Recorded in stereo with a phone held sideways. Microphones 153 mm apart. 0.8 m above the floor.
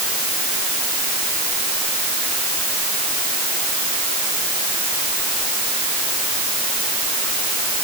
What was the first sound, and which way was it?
Only background noise.